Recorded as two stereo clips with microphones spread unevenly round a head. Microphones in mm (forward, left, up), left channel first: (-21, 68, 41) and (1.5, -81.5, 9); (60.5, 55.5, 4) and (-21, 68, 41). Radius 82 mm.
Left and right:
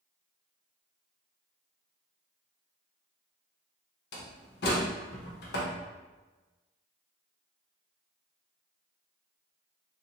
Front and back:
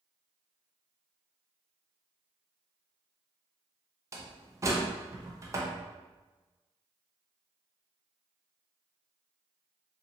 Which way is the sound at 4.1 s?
120° left.